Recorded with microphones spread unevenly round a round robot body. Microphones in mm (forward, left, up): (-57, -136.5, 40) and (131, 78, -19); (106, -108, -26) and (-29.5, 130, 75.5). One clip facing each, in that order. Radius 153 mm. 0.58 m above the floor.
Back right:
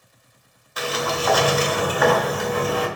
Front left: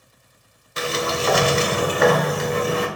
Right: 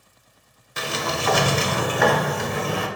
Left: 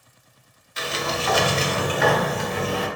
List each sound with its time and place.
0.8 s a sliding door: 15° right, 0.6 m